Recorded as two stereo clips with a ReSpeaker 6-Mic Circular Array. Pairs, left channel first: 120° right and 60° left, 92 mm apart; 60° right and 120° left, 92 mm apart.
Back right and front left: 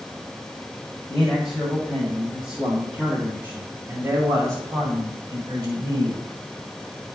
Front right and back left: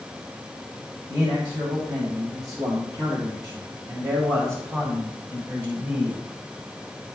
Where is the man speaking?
155° left, 2.5 m; by 6.2 s 55° left, 2 m.